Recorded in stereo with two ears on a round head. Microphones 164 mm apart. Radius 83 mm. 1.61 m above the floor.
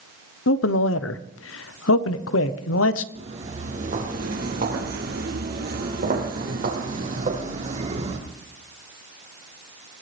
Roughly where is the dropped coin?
No dropped coin in this recording.